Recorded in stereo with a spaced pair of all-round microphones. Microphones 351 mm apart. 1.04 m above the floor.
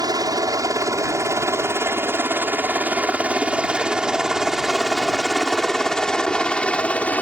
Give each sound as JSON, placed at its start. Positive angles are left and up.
{"t": 0.0, "sound": "a helicopter", "side_deg": -10}